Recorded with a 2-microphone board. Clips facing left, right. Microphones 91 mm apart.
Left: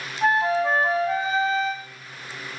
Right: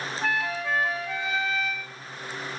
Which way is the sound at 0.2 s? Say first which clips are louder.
Left 9 dB; 35° left (ahead or behind).